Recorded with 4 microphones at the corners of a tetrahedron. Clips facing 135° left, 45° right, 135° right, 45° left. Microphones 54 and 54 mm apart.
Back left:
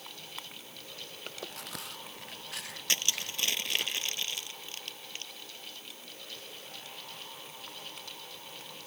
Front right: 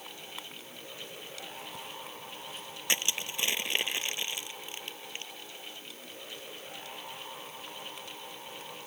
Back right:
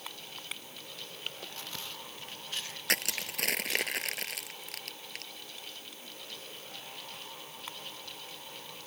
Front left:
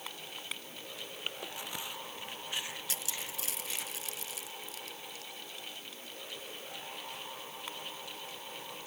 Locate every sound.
1.3 s chewing: 120° left
2.9 s crushing: 115° right